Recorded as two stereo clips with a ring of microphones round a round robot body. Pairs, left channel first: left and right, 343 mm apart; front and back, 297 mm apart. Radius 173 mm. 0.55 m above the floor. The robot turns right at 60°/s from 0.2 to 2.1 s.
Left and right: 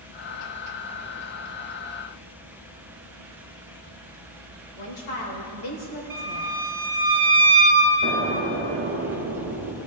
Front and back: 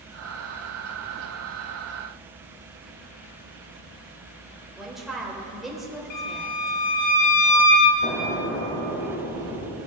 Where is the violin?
30° right, 3 m.